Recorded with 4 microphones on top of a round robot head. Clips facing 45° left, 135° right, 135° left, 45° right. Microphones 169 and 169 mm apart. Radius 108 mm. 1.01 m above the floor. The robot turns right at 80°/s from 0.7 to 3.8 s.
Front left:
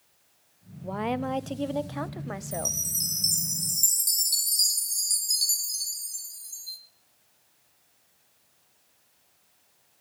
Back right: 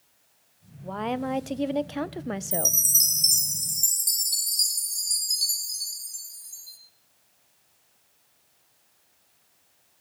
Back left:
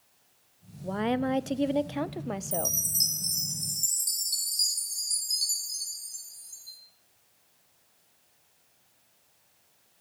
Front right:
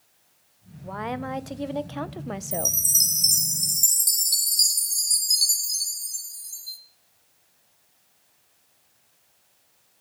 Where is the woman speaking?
105° left, 0.5 m; by 2.8 s 100° right, 0.5 m.